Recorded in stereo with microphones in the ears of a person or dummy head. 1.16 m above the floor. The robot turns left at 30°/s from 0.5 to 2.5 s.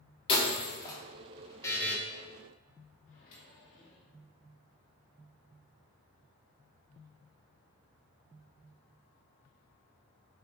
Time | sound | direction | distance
0.3 | breaking glass | 35° left (ahead or behind) | 1.5 m
1.6 | a buzzer | 15° left (ahead or behind) | 1.6 m
3.1 | a microwave | 45° left (ahead or behind) | 2.5 m